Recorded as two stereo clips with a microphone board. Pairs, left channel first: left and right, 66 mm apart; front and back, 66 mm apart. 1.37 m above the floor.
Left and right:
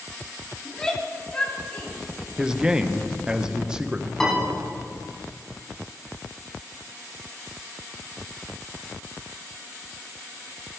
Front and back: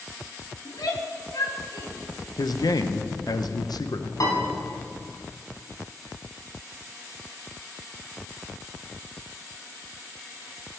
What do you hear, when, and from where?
0.7 s a shout: 10° left, 2.5 m; by 1.9 s 25° left, 2.5 m
2.4 s a man speaking: 10° right, 0.8 m
4.2 s a piano: 10° left, 4 m